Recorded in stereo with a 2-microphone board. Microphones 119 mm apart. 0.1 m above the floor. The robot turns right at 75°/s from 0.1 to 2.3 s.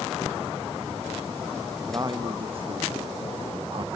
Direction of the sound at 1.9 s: 20° right (ahead or behind).